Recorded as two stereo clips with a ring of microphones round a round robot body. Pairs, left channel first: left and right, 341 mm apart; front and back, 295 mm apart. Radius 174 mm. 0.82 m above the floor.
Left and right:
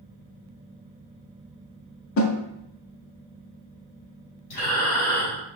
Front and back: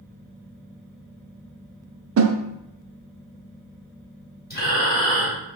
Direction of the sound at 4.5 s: 60° left.